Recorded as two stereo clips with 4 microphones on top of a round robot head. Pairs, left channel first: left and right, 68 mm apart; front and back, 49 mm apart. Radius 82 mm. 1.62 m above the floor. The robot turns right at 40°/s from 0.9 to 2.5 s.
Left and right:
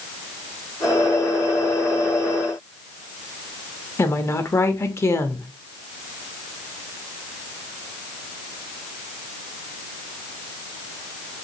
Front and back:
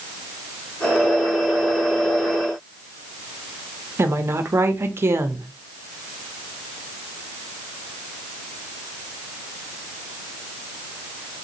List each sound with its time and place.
4.0 s a woman speaking: 140° left, 0.9 m